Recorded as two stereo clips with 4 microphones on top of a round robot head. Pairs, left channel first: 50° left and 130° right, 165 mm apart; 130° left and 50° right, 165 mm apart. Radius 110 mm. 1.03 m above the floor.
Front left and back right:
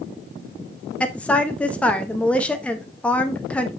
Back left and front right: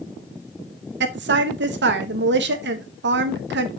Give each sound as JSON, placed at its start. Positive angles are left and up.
{"t": 1.0, "sound": "a woman speaking", "azimuth_deg": -35, "distance_m": 1.1}